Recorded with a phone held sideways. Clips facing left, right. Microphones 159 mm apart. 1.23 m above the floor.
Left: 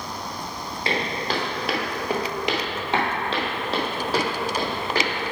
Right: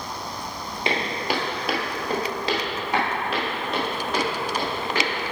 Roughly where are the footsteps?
Right.